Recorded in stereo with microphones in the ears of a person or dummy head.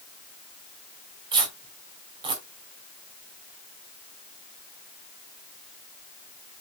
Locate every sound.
1.3 s tearing paper: 30° right (ahead or behind), 3.5 m